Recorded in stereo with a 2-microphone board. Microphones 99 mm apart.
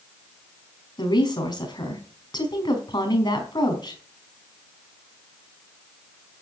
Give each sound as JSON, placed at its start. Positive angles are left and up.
{"t": 1.0, "sound": "a woman speaking", "side_deg": 45, "distance_m": 4.5}